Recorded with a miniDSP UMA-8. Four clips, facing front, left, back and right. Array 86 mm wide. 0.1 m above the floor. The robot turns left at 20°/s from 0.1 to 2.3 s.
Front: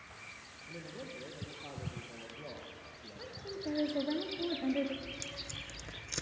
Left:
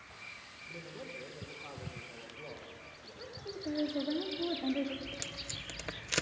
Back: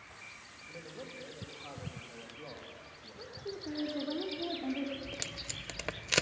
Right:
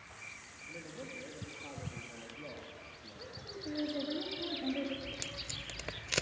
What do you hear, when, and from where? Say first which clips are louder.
0.7 s a man speaking: even, front 1 dB; 10° left, 2 m; by 4.1 s 25° right, 2 m
3.2 s a woman speaking: left 3 dB, back 1 dB; 5° left, 2 m
5.0 s tape being pulled: even, back 2 dB; 175° right, 0.5 m